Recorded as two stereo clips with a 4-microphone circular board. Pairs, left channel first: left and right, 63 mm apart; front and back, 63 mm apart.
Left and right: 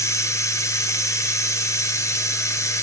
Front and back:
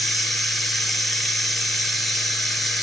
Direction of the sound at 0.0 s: 85° left.